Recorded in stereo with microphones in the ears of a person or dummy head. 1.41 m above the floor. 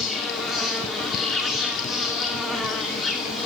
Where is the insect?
5° right (ahead or behind), 2.5 m.